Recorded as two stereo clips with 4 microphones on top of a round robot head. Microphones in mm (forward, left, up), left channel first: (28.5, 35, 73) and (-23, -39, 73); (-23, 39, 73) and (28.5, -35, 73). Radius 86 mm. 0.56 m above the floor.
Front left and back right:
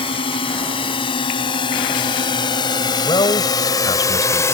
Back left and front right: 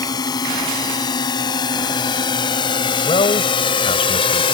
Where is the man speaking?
100° left.